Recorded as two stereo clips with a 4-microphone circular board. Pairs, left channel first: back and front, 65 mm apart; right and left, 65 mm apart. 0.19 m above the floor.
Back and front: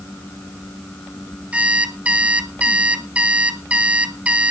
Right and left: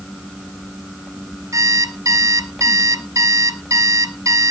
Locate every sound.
1.5 s an alarm clock: 70° left, 1.3 m